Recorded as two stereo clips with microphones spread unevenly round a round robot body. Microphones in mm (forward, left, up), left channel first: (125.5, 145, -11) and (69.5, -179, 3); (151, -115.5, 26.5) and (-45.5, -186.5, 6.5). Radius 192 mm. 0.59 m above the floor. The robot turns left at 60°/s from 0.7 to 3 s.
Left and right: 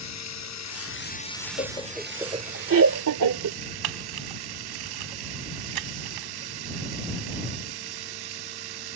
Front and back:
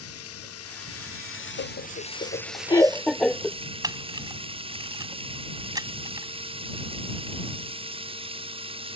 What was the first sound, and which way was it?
Running water, 40° left.